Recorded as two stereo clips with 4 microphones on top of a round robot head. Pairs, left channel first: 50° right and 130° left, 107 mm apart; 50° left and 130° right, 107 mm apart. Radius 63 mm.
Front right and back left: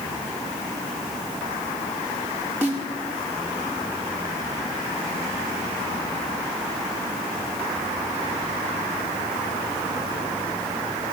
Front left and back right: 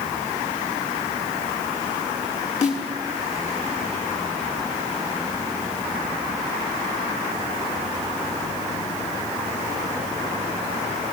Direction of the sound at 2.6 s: 60° left.